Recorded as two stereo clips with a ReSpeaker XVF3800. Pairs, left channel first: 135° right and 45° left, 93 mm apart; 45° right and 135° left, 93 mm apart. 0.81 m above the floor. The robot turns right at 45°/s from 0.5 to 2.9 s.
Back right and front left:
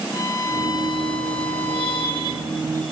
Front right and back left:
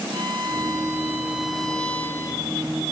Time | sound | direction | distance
0.1 | a violin | 175° left | 5.5 m